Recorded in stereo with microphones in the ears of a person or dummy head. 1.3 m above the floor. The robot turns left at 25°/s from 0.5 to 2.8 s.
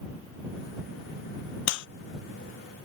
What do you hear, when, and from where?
1.7 s a clap: 55° left (ahead or behind); by 1.9 s 60° left (ahead or behind)